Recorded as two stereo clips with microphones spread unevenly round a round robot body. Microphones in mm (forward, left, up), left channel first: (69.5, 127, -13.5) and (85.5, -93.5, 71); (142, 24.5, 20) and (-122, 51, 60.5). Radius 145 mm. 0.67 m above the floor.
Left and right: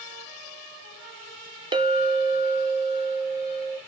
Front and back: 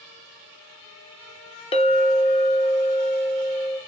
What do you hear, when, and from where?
1.7 s a clink: 5° left, 0.6 m